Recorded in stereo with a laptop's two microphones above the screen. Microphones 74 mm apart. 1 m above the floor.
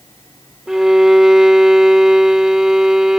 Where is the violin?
5° right (ahead or behind).